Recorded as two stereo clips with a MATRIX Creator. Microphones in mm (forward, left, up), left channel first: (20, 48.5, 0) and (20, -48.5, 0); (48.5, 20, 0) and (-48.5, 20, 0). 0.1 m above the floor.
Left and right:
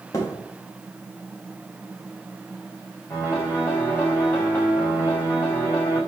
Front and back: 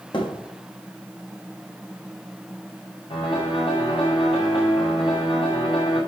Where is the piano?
20° left, 6.5 m.